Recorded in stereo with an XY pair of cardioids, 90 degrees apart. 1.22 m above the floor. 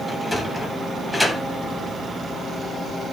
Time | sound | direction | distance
0.1 | a sliding door | straight ahead | 7 m